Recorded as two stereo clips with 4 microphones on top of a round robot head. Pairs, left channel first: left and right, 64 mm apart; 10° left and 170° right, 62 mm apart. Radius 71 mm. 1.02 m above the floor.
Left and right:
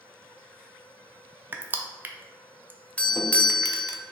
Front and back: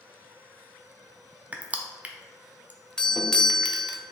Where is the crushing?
125° right, 0.6 m.